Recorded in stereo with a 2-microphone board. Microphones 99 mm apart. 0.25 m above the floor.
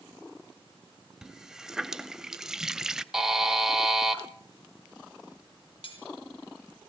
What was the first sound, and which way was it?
A running tap, 5° right (ahead or behind).